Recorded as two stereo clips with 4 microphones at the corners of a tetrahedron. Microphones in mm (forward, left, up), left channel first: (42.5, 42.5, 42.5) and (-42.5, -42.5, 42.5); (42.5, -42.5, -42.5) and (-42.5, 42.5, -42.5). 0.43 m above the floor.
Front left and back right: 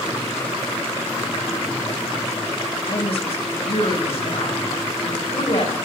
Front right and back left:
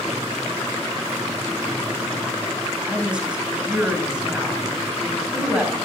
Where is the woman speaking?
55° left, 2.5 m.